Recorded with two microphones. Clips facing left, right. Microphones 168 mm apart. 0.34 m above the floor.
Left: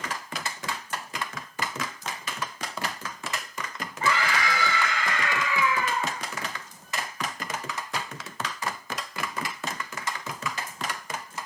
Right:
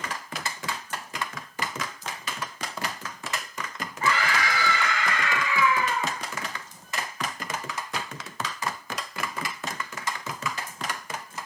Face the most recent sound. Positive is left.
turn(degrees=45)  # may be behind; listen again after turning